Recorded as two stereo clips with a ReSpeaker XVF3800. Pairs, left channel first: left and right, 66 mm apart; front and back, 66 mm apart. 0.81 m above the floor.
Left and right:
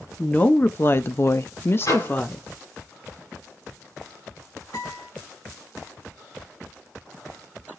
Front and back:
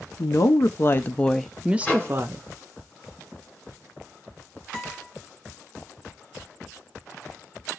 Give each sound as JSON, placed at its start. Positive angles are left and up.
{"t": 0.2, "sound": "a woman speaking", "azimuth_deg": 25, "distance_m": 0.9}
{"t": 1.8, "sound": "a microwave", "azimuth_deg": 70, "distance_m": 4.0}
{"t": 4.7, "sound": "a guitar", "azimuth_deg": 85, "distance_m": 3.5}